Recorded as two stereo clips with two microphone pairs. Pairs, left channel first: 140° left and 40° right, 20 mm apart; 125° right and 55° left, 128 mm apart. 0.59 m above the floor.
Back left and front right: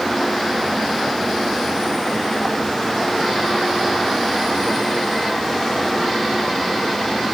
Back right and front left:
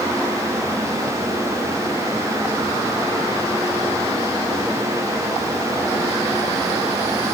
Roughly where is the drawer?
No drawer in this recording.